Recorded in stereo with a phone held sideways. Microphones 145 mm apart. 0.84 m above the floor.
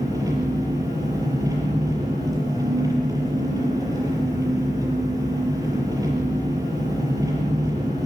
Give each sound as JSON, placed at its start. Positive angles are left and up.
{"t": 0.0, "sound": "an engine running", "side_deg": -25, "distance_m": 6.0}